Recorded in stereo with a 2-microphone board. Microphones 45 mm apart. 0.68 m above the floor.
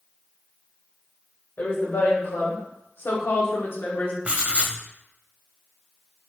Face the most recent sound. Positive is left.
turn(degrees=-30)  # may be behind; listen again after turning